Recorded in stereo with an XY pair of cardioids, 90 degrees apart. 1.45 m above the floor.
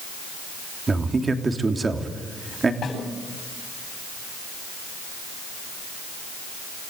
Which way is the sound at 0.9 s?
30° right.